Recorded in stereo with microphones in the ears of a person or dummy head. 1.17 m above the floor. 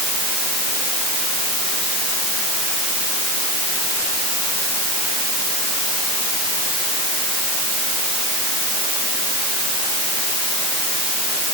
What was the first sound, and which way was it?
Only background noise.